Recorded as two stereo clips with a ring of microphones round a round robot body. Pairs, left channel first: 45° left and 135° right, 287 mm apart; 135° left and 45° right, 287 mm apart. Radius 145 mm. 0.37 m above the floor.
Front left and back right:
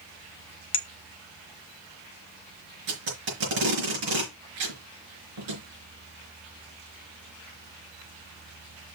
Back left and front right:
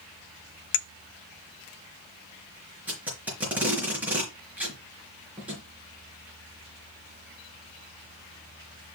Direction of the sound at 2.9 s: 130° right.